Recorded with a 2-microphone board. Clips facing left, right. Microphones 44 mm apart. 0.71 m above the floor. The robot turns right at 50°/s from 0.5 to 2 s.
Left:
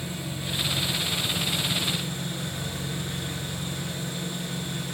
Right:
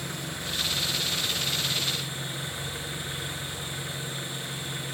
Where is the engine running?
95° right, 7 m; by 5.0 s 20° right, 7 m.